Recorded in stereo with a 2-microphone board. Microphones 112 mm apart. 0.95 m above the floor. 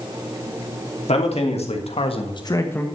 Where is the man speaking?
70° left (ahead or behind), 2.5 m; by 2.9 s 15° left (ahead or behind), 1.3 m.